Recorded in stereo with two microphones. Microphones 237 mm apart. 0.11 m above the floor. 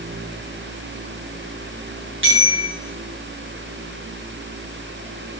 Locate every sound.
2.2 s a bicycle bell: 55° right (ahead or behind), 8 m